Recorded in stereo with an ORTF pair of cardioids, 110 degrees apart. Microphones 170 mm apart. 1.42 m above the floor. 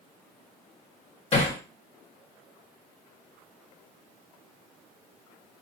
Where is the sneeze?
No sneeze in this recording.